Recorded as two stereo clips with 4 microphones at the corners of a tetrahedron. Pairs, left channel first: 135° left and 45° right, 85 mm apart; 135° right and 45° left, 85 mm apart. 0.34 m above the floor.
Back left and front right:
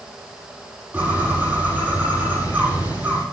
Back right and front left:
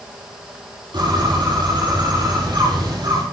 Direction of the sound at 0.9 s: 25° left.